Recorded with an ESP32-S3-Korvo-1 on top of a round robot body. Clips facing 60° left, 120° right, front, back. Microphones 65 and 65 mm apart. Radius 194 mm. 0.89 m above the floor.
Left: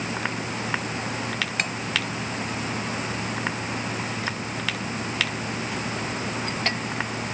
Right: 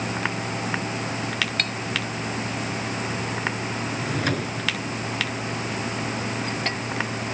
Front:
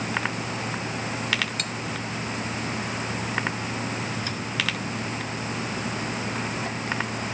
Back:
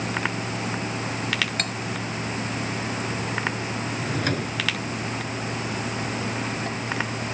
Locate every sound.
1.6 s cutlery clinking: 135° left
4.0 s a drawer: 145° right